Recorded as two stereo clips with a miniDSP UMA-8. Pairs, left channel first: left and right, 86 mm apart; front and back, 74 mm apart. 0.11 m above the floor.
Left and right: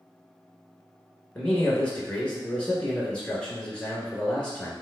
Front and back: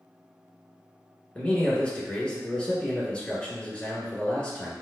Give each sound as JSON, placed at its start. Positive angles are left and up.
{"t": 1.4, "sound": "a man speaking", "azimuth_deg": 40, "distance_m": 1.1}